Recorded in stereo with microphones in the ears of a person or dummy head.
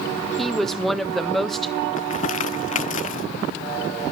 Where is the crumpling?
45° left (ahead or behind), 0.7 m.